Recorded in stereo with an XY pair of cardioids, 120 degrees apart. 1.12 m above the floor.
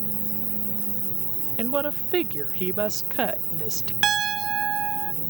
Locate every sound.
0.0 s an insect: 30° right
1.6 s a woman speaking: 35° right
4.0 s a piano: 45° right